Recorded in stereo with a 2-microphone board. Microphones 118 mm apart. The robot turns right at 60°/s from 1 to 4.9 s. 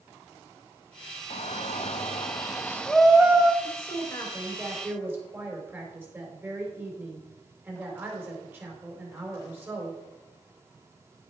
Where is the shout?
80° left, 1.1 m; by 3.5 s 150° right, 1.1 m.